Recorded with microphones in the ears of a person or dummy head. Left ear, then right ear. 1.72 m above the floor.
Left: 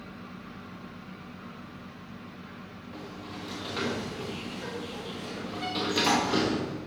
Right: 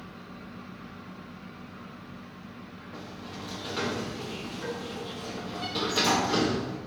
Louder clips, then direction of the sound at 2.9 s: Even; 5° left (ahead or behind).